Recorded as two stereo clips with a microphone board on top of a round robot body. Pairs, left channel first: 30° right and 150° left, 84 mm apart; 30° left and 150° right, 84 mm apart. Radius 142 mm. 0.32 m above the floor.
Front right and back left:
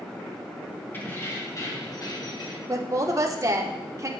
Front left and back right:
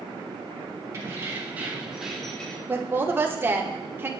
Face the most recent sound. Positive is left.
turn(degrees=160)